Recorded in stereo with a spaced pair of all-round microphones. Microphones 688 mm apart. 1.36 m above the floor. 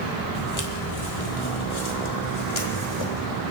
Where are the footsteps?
30° left (ahead or behind), 1.8 m; by 3.3 s 40° left (ahead or behind), 3 m.